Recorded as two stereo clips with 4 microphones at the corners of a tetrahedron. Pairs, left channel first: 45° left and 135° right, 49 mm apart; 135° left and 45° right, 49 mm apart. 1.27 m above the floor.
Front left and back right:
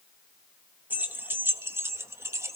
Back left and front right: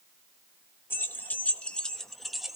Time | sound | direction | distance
0.9 | keys jangling | 175° left | 0.9 m